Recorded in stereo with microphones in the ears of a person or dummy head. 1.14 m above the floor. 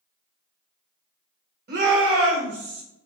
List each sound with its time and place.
1.7 s a shout: 50° right (ahead or behind), 1.1 m; by 2.8 s 75° right (ahead or behind), 1.6 m